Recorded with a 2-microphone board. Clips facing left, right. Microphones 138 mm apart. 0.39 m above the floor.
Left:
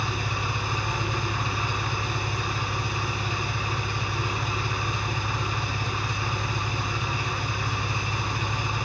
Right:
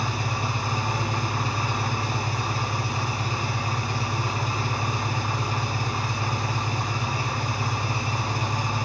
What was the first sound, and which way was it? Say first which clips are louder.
An engine running: right 2 dB; 40° right (ahead or behind).